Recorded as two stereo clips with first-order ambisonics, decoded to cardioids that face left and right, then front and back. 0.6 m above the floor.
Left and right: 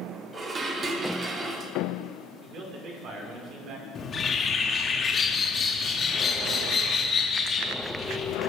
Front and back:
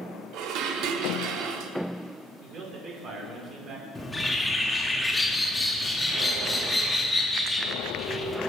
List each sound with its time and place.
0.3 s dishes clattering: 155° right, 0.7 m
2.4 s a man speaking: 125° right, 1.8 m
4.0 s a bird: 75° left, 0.6 m